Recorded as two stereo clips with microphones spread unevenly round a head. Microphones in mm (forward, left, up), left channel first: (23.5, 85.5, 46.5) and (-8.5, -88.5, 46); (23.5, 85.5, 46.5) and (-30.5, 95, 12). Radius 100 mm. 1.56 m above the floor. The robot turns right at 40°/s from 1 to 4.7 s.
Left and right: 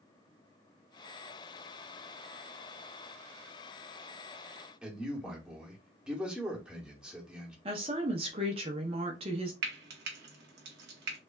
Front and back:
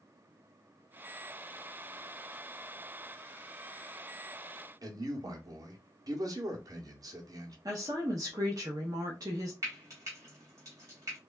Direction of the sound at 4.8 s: 175° left.